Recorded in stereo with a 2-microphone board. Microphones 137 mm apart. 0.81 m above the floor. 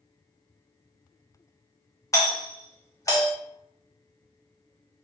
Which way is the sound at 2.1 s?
25° left (ahead or behind).